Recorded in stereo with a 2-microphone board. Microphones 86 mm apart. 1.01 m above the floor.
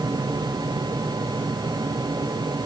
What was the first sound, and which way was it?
Only background noise.